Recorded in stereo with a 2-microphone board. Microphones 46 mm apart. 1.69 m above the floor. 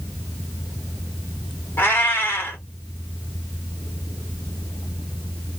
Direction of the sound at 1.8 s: 50° left (ahead or behind).